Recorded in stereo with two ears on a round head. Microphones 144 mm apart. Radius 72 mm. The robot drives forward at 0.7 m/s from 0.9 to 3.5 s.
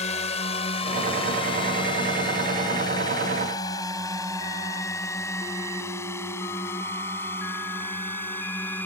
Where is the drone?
45° left (ahead or behind); by 8.9 s 15° left (ahead or behind).